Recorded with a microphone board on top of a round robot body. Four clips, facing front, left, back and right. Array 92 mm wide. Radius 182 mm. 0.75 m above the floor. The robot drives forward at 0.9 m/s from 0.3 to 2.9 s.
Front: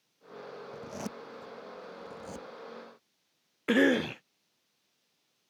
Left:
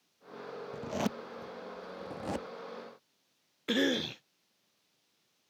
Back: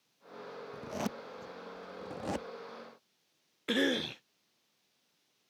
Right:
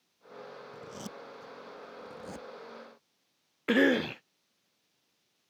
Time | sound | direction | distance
0.7 | a zipper | 100° left | ?
3.7 | a cough | 45° right | ?